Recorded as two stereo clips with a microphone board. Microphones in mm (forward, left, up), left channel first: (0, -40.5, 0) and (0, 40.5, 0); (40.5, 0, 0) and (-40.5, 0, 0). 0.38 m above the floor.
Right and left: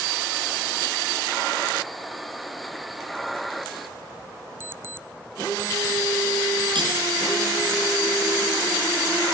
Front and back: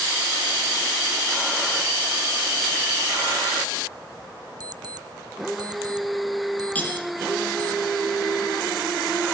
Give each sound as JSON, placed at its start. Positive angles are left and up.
{"t": 4.6, "sound": "an alarm clock", "azimuth_deg": 150, "distance_m": 0.5}
{"t": 6.8, "sound": "cutlery clinking", "azimuth_deg": 70, "distance_m": 7.5}